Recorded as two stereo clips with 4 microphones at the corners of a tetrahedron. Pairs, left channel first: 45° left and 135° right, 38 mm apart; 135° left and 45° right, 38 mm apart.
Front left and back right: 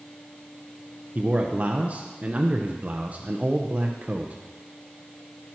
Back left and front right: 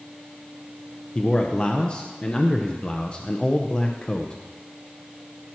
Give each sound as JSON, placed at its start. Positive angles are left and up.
{"t": 1.1, "sound": "a man speaking", "azimuth_deg": -170, "distance_m": 0.7}